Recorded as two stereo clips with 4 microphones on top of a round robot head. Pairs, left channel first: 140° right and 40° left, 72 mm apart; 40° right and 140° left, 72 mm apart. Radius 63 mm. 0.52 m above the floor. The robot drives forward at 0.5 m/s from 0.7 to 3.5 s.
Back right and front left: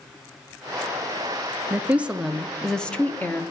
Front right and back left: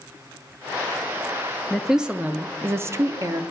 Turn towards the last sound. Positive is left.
turn(degrees=165)